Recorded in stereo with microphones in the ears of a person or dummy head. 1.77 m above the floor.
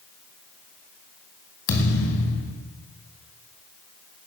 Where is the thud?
60° left (ahead or behind), 3 m.